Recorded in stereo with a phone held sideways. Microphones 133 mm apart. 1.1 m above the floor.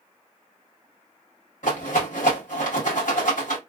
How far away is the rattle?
About 1.6 m.